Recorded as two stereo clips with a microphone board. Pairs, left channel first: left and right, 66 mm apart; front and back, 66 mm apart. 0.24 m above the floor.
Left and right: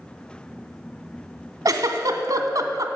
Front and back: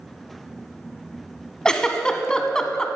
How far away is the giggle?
About 0.7 m.